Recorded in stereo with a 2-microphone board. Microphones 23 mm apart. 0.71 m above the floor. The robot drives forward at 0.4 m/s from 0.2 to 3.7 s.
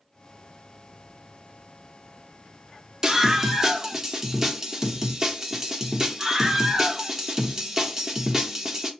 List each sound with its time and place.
3.0 s a scream: 30° right (ahead or behind), 1.0 m; by 8.9 s 20° right (ahead or behind), 1.2 m